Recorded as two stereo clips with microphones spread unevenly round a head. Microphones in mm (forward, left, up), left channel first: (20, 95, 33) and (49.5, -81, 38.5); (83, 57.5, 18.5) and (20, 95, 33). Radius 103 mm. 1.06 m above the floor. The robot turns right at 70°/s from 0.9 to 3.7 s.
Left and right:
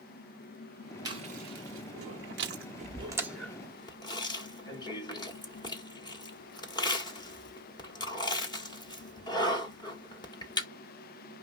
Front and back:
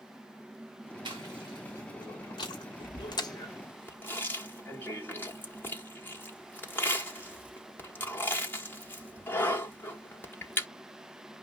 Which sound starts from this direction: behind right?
Chewing, at 1.1 s.